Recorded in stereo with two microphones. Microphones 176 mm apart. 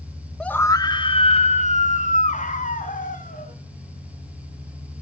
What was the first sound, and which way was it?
A scream, 5° left (ahead or behind).